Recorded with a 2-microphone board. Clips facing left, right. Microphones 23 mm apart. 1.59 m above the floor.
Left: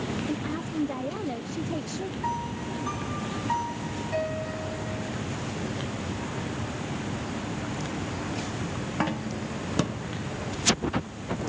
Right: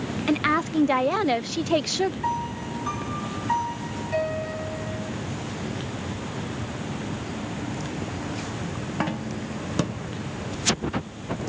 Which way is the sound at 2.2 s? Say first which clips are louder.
Right 3 dB; 20° right (ahead or behind).